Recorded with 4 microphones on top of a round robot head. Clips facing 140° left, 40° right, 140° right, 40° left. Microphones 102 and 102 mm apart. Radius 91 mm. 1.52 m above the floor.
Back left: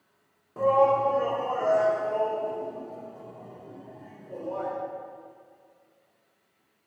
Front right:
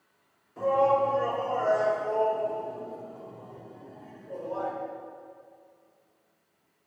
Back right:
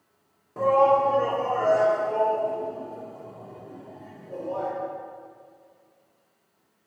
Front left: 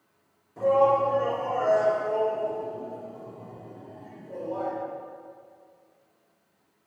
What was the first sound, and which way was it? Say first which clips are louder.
A shout: back left 2 dB, back right 2 dB; 175° right.